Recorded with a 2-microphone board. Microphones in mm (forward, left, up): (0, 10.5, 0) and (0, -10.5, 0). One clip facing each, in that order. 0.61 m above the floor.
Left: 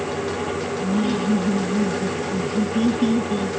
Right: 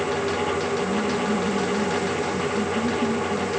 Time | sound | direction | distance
0.8 | laughter | 65° left (ahead or behind) | ?